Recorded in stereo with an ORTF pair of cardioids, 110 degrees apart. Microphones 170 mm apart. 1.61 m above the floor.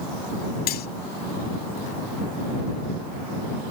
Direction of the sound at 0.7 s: 70° left.